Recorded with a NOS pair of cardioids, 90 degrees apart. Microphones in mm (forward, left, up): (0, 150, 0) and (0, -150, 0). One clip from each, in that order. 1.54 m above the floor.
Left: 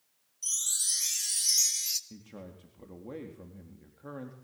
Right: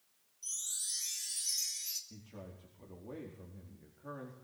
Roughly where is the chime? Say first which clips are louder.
Left 9 dB; ahead left.